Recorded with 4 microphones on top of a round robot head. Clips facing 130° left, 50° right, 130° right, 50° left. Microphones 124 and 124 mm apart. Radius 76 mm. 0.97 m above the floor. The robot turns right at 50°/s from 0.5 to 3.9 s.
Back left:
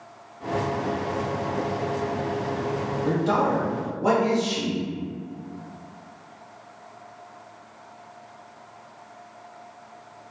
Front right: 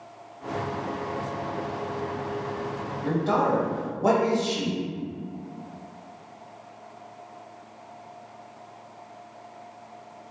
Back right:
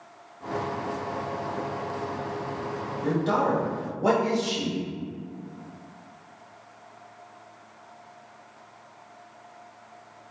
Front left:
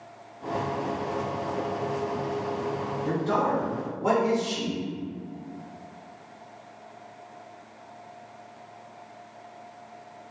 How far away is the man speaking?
About 1.3 m.